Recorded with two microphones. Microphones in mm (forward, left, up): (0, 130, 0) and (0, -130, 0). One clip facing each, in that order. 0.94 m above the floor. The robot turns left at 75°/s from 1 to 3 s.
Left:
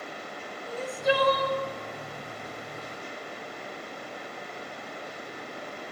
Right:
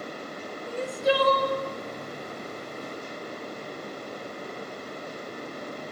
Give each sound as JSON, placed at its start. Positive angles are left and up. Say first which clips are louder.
{"t": 0.7, "sound": "crying", "louder": "right 2 dB", "azimuth_deg": -35, "distance_m": 1.1}